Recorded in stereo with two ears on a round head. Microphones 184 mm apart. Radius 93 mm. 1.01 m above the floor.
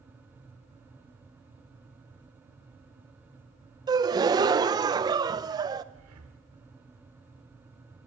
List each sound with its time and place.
3.9 s a gasp: 20° right (ahead or behind), 0.6 m
5.9 s breathing: 80° right, 1.8 m